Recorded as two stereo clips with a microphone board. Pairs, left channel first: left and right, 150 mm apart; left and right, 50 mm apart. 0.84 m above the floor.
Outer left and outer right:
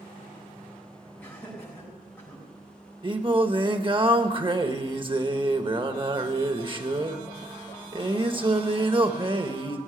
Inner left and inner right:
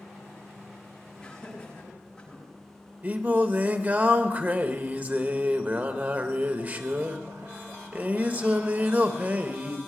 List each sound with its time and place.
1.2 s laughter: 10° left (ahead or behind), 8 m
3.0 s singing: 35° right (ahead or behind), 1.0 m